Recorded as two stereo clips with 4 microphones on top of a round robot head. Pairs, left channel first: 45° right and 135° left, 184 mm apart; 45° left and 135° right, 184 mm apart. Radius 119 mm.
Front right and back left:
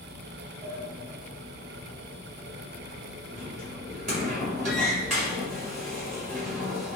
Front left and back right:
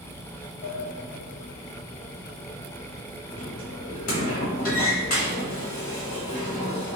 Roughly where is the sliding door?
Left.